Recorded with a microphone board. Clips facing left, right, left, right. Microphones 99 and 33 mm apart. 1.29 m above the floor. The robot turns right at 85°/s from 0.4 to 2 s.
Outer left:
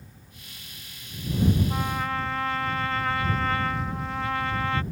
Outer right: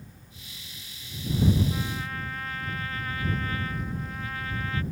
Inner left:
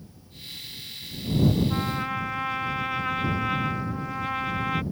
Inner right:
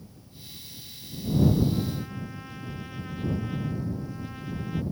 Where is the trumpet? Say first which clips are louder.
Outer left 5 dB, inner left 4 dB; 65° left (ahead or behind); by 4.8 s 75° left (ahead or behind).